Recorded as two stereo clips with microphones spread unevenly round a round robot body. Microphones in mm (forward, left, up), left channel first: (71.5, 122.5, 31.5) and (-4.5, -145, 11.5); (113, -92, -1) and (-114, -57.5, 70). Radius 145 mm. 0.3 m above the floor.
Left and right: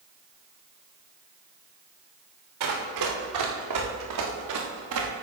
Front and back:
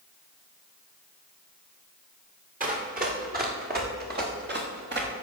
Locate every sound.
2.6 s running footsteps: 135° right, 4.5 m; by 5.1 s 150° right, 3.5 m